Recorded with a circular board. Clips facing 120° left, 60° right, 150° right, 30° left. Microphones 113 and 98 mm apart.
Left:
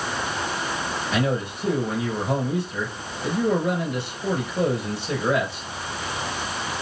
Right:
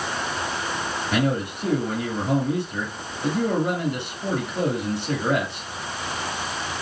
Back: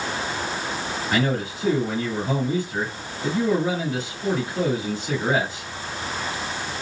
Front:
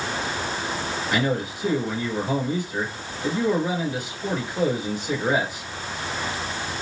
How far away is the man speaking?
About 3 m.